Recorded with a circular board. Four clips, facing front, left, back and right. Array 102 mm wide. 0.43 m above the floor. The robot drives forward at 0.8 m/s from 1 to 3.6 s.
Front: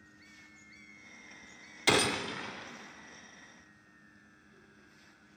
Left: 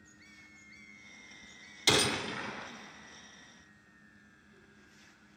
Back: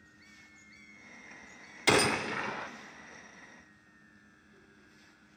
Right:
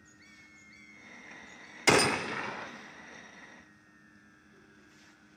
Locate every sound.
1.9 s a gunshot: 100° right, 0.7 m; by 2.7 s 155° right, 1.0 m